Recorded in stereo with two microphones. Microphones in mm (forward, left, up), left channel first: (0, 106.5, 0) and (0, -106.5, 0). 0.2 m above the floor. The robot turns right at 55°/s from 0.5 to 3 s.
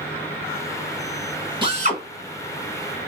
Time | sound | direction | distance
1.6 | a drill | 25° right (ahead or behind) | 1.5 m